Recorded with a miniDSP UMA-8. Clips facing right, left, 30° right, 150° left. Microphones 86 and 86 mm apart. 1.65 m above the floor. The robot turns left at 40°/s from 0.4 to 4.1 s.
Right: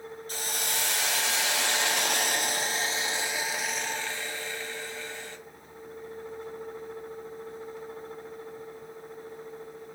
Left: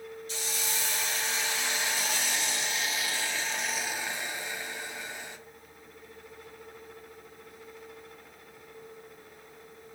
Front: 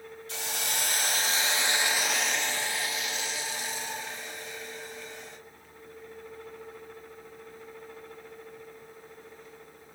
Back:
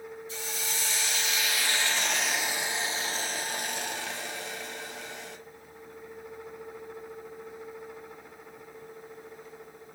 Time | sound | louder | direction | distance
0.3 | a hiss | right 3 dB, front 4 dB | 50° right | 0.6 m